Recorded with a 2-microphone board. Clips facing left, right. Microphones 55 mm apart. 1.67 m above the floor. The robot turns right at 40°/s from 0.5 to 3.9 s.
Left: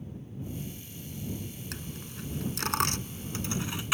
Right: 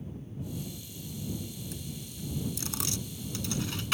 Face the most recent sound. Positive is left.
turn(degrees=10)  # may be behind; listen again after turning